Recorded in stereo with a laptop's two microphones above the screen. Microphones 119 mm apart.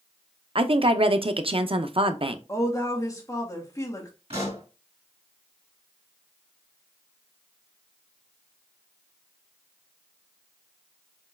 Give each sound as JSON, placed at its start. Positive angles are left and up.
{"t": 0.6, "sound": "a woman speaking", "side_deg": -50, "distance_m": 0.5}
{"t": 2.5, "sound": "a woman speaking", "side_deg": 30, "distance_m": 1.2}
{"t": 4.3, "sound": "a pop", "side_deg": -60, "distance_m": 2.5}